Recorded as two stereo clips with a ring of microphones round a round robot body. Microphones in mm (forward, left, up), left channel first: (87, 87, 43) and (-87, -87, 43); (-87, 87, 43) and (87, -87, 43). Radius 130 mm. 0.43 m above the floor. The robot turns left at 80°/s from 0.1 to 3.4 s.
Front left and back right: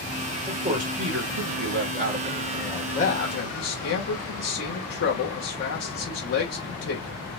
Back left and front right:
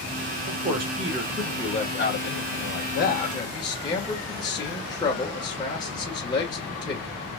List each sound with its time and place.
0.5 s a man speaking: 60° right, 1.2 m; by 7.2 s 65° left, 1.2 m